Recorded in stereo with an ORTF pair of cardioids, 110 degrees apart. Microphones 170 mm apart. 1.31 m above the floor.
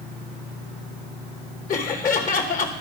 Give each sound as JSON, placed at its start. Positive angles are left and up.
{"t": 1.7, "sound": "laughter", "azimuth_deg": 55, "distance_m": 1.3}